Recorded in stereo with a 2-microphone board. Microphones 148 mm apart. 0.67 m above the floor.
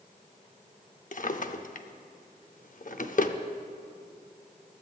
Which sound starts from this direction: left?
A drawer, at 1.1 s.